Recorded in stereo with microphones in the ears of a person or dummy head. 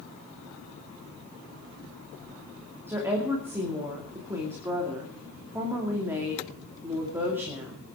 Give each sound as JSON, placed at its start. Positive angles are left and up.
{"t": 2.9, "sound": "a woman speaking", "side_deg": -15, "distance_m": 2.5}